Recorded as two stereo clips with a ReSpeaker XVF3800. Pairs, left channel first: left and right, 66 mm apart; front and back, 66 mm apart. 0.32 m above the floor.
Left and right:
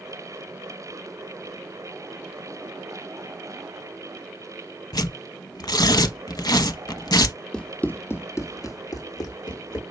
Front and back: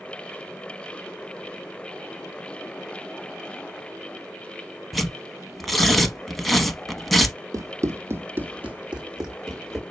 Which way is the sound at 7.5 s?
165° left.